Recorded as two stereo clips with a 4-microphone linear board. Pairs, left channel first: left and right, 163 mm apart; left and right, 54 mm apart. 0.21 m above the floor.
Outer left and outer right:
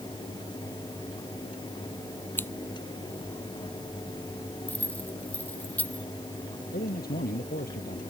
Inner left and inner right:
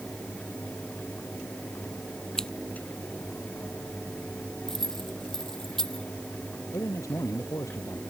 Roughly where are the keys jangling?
Centre.